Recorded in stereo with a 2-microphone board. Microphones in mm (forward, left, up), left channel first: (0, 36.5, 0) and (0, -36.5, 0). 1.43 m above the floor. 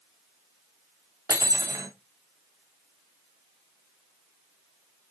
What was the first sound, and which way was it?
Cutlery clinking, 65° right (ahead or behind).